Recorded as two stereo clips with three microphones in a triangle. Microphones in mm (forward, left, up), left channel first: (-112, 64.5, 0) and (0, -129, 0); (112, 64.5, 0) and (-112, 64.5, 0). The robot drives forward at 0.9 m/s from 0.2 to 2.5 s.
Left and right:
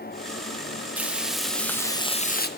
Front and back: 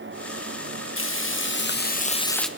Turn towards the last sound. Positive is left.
turn(degrees=90)